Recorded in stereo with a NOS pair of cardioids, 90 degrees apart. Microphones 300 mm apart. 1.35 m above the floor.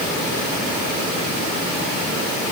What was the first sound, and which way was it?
Only background noise.